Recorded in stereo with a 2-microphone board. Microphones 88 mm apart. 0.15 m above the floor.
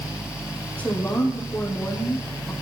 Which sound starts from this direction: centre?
A woman speaking, at 0.8 s.